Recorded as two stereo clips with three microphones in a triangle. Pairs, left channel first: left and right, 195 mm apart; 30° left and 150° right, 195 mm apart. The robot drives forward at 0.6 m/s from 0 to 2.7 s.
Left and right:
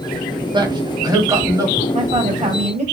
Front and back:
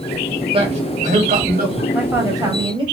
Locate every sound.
0.5 s a man speaking: 130° right, 1.0 m; by 1.8 s 160° right, 1.4 m
1.9 s a woman speaking: 70° right, 1.3 m; by 2.9 s 105° right, 1.2 m